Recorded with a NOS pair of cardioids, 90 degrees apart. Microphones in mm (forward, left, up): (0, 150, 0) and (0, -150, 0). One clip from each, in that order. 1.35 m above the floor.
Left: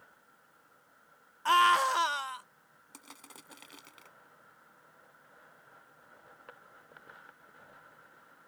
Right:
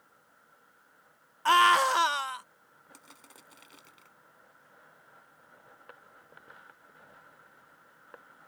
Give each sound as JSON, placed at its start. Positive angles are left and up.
{"t": 1.4, "sound": "a scream", "azimuth_deg": -20}
{"t": 2.9, "sound": "crushing", "azimuth_deg": 30}